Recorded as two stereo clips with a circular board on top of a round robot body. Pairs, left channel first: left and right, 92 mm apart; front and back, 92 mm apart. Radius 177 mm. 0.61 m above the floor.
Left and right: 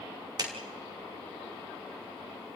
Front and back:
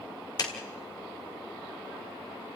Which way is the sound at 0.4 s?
45° right.